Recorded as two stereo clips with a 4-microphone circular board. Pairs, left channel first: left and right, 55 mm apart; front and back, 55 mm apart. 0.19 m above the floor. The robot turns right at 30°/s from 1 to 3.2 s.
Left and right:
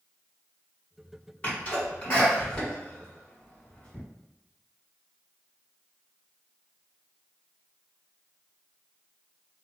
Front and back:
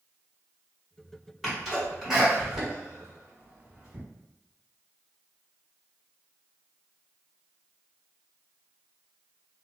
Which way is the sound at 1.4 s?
90° left.